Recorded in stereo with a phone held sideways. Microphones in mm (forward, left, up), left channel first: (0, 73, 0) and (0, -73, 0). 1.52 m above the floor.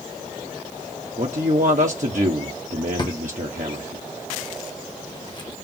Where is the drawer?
30° left (ahead or behind), 0.9 m.